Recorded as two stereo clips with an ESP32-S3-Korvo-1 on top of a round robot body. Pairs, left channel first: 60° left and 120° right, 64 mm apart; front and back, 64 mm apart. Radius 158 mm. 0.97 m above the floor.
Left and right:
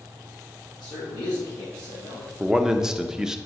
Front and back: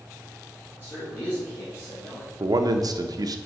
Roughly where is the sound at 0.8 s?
Ahead left.